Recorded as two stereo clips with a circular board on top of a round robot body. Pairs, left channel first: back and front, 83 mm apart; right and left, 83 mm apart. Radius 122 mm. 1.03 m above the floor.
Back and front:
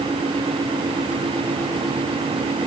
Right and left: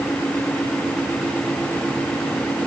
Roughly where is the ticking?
I don't hear ticking.